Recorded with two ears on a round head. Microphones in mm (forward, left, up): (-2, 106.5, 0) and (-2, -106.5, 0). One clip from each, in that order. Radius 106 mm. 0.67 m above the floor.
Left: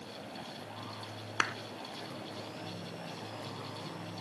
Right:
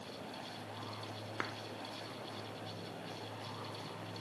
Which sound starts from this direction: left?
A clap, at 1.4 s.